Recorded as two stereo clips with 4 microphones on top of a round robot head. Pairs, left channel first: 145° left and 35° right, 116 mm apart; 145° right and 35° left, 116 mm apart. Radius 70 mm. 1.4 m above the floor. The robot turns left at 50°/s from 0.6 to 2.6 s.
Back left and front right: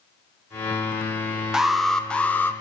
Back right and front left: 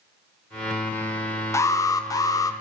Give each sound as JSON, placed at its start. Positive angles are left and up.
{"t": 1.5, "sound": "an alarm", "azimuth_deg": -115, "distance_m": 0.6}